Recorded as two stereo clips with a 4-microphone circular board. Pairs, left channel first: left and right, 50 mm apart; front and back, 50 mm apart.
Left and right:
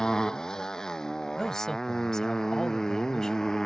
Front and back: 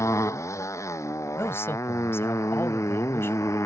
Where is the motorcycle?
15° left; by 3.7 s 10° left.